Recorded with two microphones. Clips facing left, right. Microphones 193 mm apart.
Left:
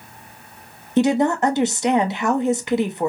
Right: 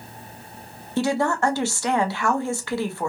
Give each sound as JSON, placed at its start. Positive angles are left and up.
{"t": 1.0, "sound": "a woman speaking", "side_deg": 20, "distance_m": 0.5}